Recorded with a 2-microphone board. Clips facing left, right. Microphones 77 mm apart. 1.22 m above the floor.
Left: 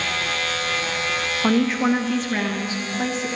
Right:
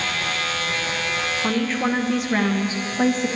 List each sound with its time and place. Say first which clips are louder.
1.4 s a woman speaking: left 5 dB; 20° left (ahead or behind), 0.8 m; by 3.3 s 45° right (ahead or behind), 1.1 m